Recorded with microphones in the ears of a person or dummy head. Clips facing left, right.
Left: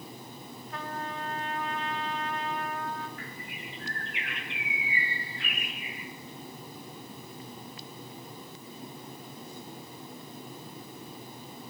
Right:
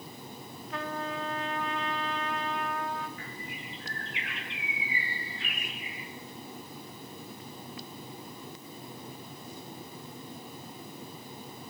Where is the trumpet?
60° right (ahead or behind), 1.8 m.